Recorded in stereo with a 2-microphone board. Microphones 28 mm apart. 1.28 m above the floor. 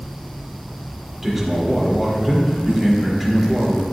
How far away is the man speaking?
About 2.5 m.